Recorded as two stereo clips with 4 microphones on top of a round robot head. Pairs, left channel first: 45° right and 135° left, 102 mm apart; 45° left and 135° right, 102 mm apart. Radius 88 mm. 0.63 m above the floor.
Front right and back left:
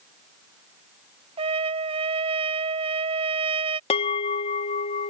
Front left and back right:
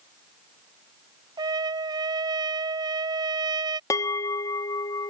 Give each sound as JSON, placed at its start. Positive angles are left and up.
{"t": 1.4, "sound": "a trumpet", "azimuth_deg": 170}
{"t": 3.9, "sound": "a bell", "azimuth_deg": -20}